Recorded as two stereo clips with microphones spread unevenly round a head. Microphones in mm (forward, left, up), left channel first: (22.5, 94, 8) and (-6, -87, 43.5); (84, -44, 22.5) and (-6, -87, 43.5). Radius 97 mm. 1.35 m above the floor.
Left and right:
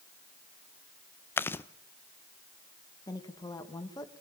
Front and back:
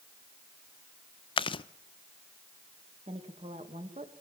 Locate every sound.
1.4 s chewing: 5° right, 0.5 m
3.1 s a woman speaking: 150° left, 2 m